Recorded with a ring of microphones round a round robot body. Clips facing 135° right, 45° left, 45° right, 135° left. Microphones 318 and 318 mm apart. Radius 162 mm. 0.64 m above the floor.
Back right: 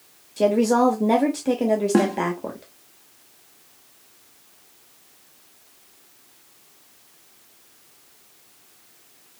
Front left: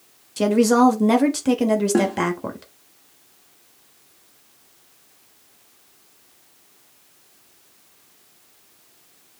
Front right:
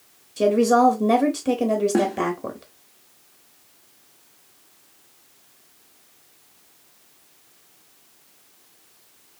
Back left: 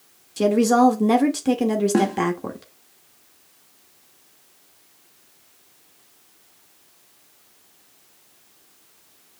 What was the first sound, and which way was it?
A woman speaking, 65° left.